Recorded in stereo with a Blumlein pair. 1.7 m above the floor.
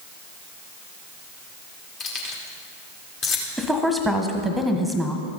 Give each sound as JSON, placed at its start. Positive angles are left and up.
{"t": 2.0, "sound": "keys jangling", "azimuth_deg": 30, "distance_m": 2.0}
{"t": 3.6, "sound": "a woman speaking", "azimuth_deg": 0, "distance_m": 1.4}